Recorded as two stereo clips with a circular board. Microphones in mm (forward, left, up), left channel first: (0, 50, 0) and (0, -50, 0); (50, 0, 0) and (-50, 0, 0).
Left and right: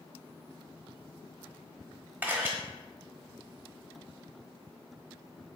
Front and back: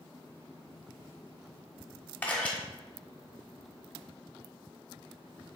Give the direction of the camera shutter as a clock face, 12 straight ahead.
2 o'clock.